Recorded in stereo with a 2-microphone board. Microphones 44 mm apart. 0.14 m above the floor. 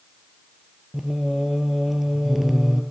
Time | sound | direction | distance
0.9 | singing | 5° right (ahead or behind) | 0.9 m